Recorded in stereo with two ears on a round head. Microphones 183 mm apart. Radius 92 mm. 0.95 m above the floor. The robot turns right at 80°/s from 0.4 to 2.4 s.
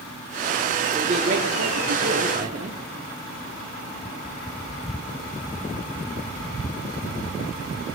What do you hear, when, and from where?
0.9 s a man speaking: 160° right, 2.5 m; by 2.8 s 40° right, 2.5 m